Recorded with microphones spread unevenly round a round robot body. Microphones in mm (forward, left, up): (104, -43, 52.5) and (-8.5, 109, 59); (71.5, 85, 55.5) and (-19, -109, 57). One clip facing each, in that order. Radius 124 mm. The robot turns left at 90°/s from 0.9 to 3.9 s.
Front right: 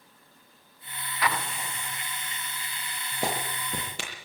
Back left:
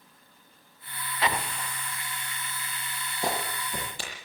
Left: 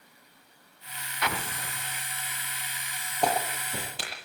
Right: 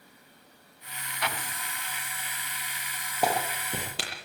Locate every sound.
1.2 s an explosion: 60° left, 0.6 m; by 2.0 s 10° right, 0.6 m
3.2 s a clap: 30° right, 9.5 m; by 4.3 s 90° right, 9.5 m